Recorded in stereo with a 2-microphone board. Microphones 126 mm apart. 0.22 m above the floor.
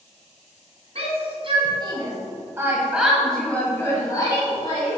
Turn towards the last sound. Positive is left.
turn(degrees=45)  # may be behind; listen again after turning